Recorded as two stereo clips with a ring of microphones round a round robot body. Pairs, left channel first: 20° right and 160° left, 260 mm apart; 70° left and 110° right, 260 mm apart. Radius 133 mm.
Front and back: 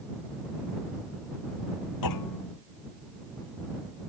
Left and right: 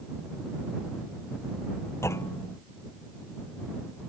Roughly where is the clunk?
Ahead.